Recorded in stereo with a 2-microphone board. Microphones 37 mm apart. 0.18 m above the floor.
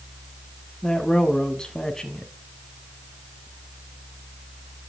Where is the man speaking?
20° left (ahead or behind), 1.1 m.